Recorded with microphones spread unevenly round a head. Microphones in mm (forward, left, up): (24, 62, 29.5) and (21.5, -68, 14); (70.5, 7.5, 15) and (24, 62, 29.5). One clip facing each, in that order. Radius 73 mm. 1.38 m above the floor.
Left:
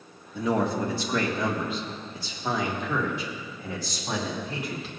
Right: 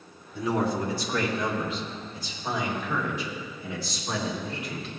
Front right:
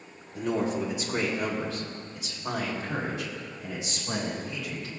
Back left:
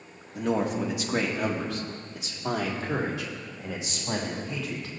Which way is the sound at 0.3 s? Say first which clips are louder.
Left 1 dB, back left 1 dB; 100° left.